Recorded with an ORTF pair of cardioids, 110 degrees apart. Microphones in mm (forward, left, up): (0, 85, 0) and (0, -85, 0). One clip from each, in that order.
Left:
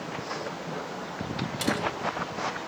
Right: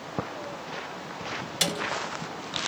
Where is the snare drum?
50° right, 7.5 m.